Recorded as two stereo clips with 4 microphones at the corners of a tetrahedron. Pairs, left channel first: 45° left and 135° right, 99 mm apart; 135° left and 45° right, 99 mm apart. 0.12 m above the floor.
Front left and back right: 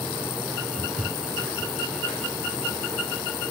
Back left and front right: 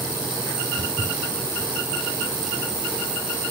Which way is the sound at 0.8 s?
155° right.